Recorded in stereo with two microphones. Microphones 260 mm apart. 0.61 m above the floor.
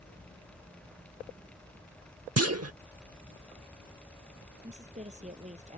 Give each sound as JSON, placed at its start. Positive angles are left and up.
{"t": 2.4, "sound": "a clunk", "side_deg": -70}
{"t": 4.6, "sound": "a woman speaking", "side_deg": -25}